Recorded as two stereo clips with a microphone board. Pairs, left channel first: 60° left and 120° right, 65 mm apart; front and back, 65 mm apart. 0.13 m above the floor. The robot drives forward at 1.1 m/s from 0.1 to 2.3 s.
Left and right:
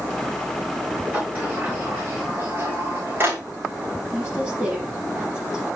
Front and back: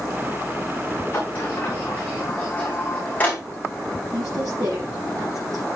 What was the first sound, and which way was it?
A sliding door, 50° right.